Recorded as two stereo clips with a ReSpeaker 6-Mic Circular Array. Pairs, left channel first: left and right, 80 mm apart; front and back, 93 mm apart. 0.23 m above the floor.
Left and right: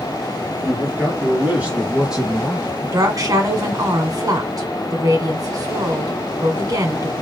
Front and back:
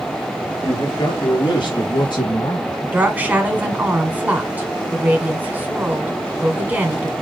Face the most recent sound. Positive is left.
turn(degrees=-115)